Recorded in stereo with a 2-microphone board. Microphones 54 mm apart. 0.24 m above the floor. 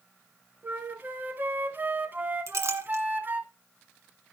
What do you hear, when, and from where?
0.6 s a flute: 40° right (ahead or behind), 0.9 m
2.5 s a clink: 60° right (ahead or behind), 1.6 m